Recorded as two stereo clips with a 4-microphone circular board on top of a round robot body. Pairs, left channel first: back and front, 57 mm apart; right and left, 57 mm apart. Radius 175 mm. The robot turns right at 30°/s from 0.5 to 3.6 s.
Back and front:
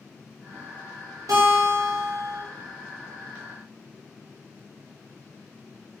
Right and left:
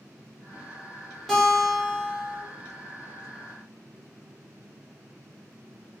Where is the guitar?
Straight ahead, 3.5 m; by 2.4 s 35° left, 3.5 m.